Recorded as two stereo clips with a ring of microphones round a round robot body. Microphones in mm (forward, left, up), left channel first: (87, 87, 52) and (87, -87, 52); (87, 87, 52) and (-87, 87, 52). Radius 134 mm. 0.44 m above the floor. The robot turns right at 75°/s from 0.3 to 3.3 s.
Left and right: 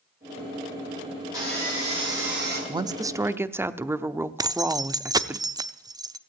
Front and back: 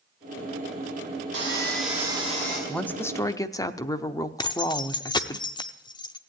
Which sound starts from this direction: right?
A woman speaking, at 2.7 s.